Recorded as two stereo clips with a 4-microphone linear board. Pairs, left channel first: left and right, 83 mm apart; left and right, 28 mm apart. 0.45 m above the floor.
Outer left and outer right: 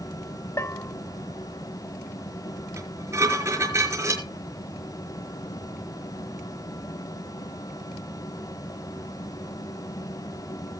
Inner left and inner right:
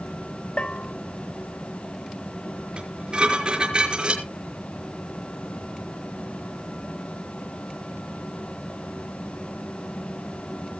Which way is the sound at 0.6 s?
40° left (ahead or behind).